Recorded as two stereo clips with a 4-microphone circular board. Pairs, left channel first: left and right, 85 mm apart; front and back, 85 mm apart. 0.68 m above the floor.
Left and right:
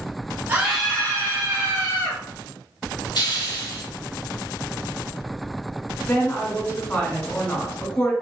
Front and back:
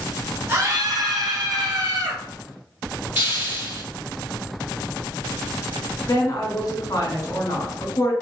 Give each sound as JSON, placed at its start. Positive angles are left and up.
{"t": 0.5, "sound": "a scream", "azimuth_deg": -140, "distance_m": 0.5}
{"t": 3.1, "sound": "a hiss", "azimuth_deg": 120, "distance_m": 1.8}
{"t": 6.1, "sound": "a woman speaking", "azimuth_deg": 30, "distance_m": 1.2}